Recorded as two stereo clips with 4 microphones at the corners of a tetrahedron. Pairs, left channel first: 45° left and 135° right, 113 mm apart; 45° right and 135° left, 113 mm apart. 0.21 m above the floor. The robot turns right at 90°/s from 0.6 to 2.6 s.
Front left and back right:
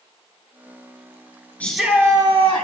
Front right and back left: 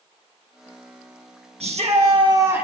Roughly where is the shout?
Behind left.